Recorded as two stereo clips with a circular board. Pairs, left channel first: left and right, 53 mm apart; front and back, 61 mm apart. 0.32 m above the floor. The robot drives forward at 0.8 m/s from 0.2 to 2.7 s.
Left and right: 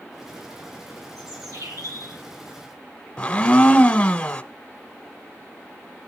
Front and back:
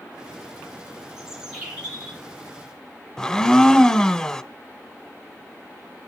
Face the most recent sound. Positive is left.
turn(degrees=65)